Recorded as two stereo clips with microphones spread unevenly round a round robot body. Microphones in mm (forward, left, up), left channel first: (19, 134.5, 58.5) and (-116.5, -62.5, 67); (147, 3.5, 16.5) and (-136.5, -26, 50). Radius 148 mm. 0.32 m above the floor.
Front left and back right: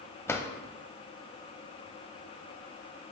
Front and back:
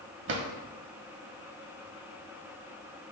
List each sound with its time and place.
0.3 s a drawer: 135° left, 1.0 m